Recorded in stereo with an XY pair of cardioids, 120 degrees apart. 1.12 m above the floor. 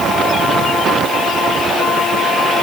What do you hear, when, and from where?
Only background noise.